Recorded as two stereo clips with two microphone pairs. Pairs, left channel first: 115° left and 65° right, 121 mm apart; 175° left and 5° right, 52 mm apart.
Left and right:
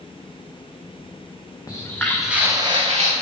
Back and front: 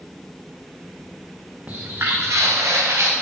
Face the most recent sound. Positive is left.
turn(degrees=-40)